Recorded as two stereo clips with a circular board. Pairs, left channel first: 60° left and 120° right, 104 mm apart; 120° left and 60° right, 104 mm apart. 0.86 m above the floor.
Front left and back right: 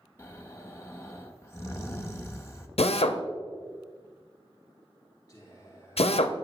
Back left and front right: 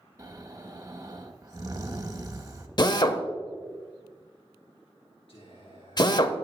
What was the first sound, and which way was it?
Snoring, 5° right.